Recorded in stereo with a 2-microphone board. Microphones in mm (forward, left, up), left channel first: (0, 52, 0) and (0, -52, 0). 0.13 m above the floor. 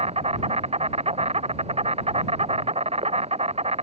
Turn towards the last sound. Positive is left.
turn(degrees=-70)  # may be behind; listen again after turning